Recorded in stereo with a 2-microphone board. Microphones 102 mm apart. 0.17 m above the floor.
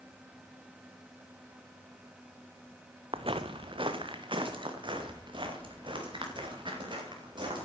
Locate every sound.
3.1 s footsteps: 65° right (ahead or behind), 0.8 m; by 7.7 s 50° right (ahead or behind), 5.5 m